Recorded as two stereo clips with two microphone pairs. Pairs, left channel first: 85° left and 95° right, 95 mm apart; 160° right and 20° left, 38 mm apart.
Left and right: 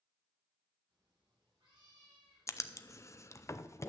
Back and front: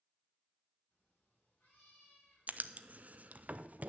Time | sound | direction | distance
0.9 | a cat meowing | 120° right | 6.5 m
2.5 | writing | 45° left | 0.5 m